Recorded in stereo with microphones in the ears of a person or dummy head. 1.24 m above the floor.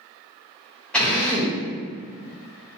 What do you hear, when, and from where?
0.9 s a drill: 5° left (ahead or behind), 0.9 m